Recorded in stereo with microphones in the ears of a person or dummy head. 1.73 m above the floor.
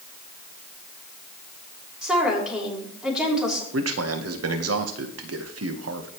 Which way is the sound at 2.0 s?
5° left (ahead or behind).